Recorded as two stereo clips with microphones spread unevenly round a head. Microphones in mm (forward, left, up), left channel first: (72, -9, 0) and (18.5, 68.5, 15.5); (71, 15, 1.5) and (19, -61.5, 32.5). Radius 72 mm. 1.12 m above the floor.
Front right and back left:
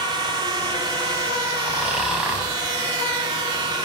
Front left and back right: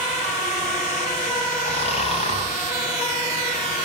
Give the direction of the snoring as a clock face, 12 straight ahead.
11 o'clock.